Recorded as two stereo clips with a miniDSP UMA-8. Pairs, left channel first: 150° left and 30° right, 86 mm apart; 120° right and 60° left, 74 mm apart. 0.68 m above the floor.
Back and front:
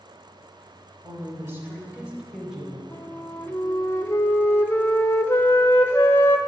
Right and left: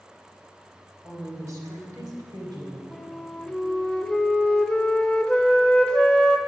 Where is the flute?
175° left, 0.6 m.